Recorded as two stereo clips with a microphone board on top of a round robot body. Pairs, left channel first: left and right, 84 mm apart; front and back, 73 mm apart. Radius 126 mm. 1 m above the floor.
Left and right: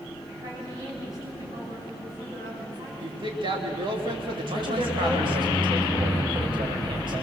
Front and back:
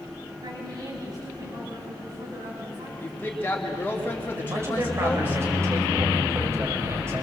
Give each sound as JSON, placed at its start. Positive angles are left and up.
{"t": 0.4, "sound": "a woman speaking", "azimuth_deg": -145, "distance_m": 6.5}
{"t": 3.0, "sound": "a woman speaking", "azimuth_deg": -65, "distance_m": 3.0}
{"t": 4.4, "sound": "a man speaking", "azimuth_deg": -125, "distance_m": 5.0}